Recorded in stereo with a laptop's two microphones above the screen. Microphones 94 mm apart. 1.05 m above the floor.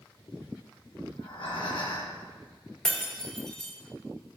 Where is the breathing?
65° left (ahead or behind), 2 m.